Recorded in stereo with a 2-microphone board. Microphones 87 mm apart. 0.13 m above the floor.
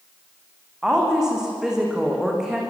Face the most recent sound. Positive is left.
turn(degrees=-5)  # may be behind; listen again after turning